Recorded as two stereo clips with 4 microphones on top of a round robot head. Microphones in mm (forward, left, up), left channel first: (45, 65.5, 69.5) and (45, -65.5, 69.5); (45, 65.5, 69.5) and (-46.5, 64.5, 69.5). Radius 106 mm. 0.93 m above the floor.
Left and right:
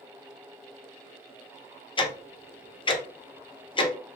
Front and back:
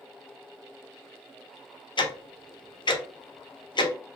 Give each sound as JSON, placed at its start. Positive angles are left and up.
{"t": 2.0, "sound": "ticking", "azimuth_deg": 35, "distance_m": 0.6}